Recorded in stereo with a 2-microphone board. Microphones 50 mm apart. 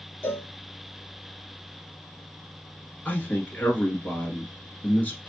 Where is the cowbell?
45° left (ahead or behind), 1.3 m.